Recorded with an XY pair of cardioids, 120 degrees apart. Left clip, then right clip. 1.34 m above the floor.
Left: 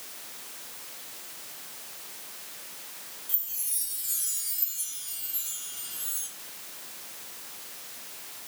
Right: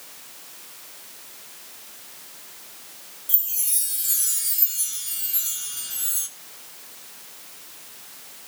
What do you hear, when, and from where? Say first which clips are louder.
3.3 s a chime: right 9 dB; 50° right, 3 m